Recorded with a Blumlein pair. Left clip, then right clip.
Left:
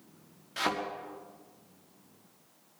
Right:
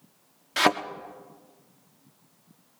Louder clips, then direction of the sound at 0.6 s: Right 9 dB; 60° right.